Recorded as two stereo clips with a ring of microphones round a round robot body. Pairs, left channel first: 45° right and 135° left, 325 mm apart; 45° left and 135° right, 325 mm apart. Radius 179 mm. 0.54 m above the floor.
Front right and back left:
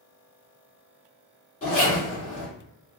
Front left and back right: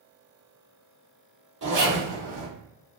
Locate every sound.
1.6 s a zipper: 100° right, 1.6 m